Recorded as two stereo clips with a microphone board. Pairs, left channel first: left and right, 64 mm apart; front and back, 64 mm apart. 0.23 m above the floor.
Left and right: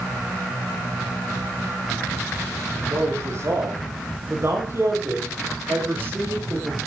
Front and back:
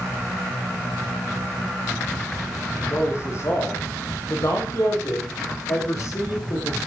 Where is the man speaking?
50° right, 7 m; by 6.8 s 35° right, 9 m.